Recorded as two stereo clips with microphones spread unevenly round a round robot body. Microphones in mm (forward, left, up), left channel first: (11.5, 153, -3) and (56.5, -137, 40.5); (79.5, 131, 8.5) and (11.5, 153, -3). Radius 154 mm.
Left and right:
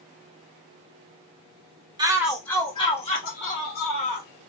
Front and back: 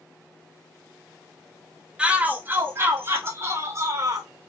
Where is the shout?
160° right, 0.7 m; by 4.3 s 150° left, 1.7 m.